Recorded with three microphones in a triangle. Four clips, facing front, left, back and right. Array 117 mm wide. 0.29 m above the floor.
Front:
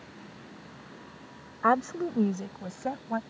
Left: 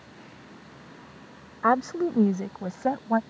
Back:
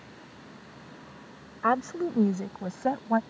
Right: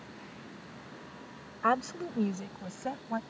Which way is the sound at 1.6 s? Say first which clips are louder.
Left 6 dB, front 1 dB; 65° left.